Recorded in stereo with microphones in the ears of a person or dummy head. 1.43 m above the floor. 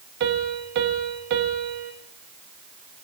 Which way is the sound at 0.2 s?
60° right (ahead or behind).